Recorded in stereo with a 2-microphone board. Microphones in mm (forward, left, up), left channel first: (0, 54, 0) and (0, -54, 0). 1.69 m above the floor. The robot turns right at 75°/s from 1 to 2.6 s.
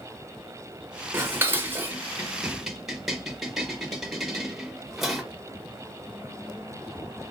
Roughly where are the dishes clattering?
Centre.